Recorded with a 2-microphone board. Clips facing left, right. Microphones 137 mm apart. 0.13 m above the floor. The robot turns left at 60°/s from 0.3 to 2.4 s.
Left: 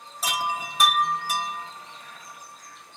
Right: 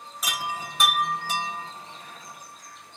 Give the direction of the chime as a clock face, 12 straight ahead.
11 o'clock.